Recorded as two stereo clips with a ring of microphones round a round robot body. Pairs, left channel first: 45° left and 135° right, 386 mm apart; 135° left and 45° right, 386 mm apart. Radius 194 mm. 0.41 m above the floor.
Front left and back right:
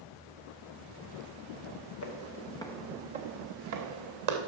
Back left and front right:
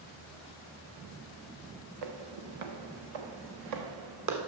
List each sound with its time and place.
2.0 s footsteps: 10° right, 1.1 m; by 4.4 s 95° right, 1.7 m